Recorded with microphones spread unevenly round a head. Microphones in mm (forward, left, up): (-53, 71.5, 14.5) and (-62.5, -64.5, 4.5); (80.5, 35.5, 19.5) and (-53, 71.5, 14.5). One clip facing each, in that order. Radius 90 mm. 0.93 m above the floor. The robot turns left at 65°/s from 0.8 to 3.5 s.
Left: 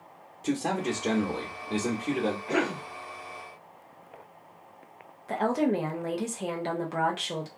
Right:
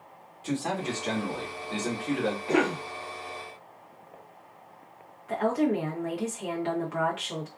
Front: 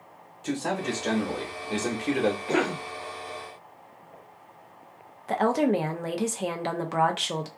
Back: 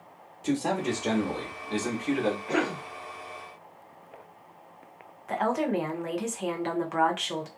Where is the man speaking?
105° left, 1.0 m; by 2.4 s 5° left, 1.0 m.